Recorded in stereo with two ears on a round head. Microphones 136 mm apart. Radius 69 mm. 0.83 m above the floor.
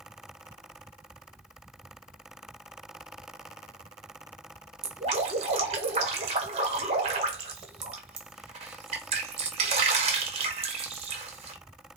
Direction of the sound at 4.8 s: 40° right (ahead or behind).